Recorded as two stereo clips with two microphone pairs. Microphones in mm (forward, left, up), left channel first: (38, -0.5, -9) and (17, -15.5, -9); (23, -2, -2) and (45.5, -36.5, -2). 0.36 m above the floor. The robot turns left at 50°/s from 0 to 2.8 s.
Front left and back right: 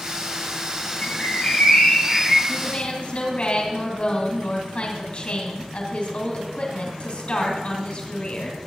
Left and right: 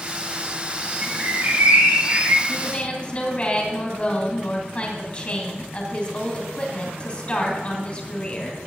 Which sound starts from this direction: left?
A woman speaking, at 2.5 s.